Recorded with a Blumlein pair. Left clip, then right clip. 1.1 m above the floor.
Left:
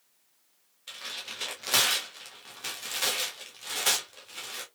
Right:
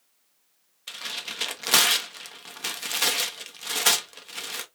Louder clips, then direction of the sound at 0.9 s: Right 5 dB; 20° right.